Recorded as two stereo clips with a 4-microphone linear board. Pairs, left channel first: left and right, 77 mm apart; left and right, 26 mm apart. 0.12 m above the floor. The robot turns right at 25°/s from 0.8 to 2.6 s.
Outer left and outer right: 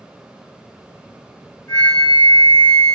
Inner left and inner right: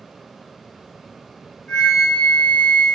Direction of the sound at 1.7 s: 25° left (ahead or behind).